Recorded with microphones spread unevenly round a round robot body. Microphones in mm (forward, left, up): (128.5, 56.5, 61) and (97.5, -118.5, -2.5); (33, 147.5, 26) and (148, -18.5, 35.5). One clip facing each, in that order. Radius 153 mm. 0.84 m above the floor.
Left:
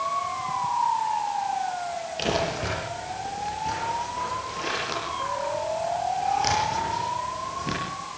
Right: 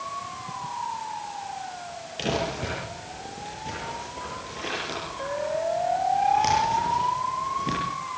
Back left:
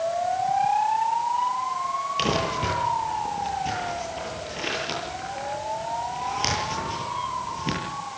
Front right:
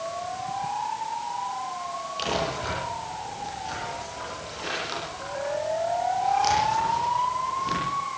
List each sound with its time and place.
2.2 s crumpling: 175° left, 9 m